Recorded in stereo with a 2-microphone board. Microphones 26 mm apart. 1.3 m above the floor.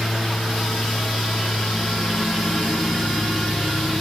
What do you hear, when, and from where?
0.0 s a lawn mower: 30° left (ahead or behind)